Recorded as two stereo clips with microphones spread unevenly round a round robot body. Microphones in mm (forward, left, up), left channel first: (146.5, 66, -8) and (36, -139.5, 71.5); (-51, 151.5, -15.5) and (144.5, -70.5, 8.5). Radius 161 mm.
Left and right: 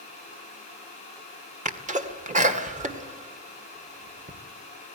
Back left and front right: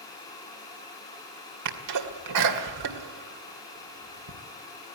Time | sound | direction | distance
1.6 | a sneeze | 50° right | 2.5 m